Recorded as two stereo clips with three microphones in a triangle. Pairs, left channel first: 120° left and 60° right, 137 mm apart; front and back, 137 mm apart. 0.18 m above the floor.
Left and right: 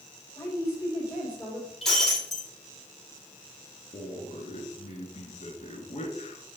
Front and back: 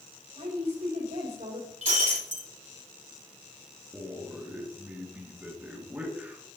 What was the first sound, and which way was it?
A woman speaking, straight behind.